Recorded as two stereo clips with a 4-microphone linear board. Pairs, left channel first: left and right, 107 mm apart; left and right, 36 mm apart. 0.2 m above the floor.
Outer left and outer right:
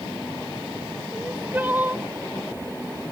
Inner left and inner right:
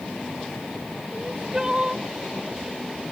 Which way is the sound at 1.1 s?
20° right (ahead or behind).